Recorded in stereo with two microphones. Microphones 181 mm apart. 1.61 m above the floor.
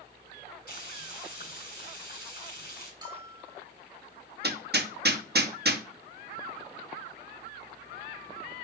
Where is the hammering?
65° right (ahead or behind), 1.0 m.